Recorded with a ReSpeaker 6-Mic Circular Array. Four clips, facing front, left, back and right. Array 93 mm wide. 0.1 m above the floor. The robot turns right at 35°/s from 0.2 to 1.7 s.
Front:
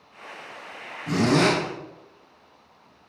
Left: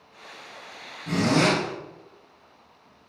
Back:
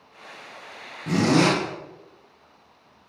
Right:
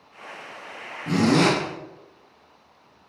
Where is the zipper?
145° right, 2.5 m; by 1.6 s 130° right, 2.5 m.